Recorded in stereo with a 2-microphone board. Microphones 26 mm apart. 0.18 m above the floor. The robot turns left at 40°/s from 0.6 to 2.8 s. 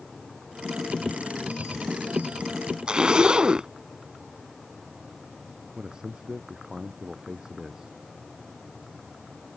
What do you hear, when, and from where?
2.9 s a zipper: 35° right (ahead or behind)
5.8 s a man speaking: 30° right (ahead or behind)